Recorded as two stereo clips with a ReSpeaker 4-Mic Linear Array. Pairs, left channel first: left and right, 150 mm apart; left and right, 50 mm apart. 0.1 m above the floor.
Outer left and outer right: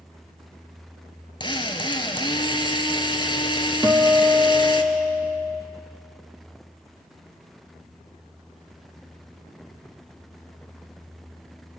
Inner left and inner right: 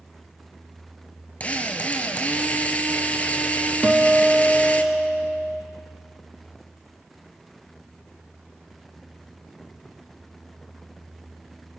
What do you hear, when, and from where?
1.4 s a drill: 30° left (ahead or behind), 1.6 m
3.8 s a guitar: 15° right (ahead or behind), 2 m